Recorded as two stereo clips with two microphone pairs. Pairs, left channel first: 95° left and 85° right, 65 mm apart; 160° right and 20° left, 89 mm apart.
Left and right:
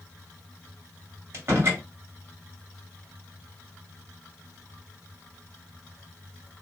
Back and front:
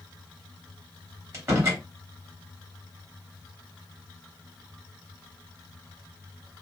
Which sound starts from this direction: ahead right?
A door slam, at 1.3 s.